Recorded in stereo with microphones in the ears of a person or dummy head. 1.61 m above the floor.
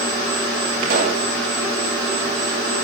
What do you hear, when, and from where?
0.8 s a pop: 55° right (ahead or behind), 8 m